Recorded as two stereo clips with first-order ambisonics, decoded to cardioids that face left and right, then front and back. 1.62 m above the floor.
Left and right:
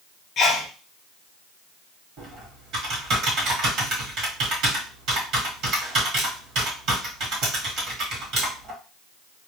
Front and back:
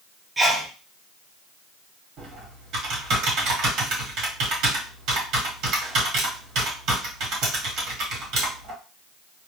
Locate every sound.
0.4 s a sneeze: 105° left, 0.6 m
2.2 s typing on a keyboard: 140° right, 1.2 m